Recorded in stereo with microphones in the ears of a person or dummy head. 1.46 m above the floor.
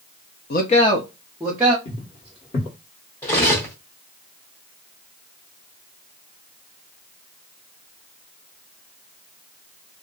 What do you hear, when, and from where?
0.5 s a man speaking: 50° left (ahead or behind), 0.5 m; by 1.8 s 10° right (ahead or behind), 0.9 m
1.9 s footsteps: 30° left (ahead or behind), 1.7 m
3.2 s cutlery clinking: 10° left (ahead or behind), 0.7 m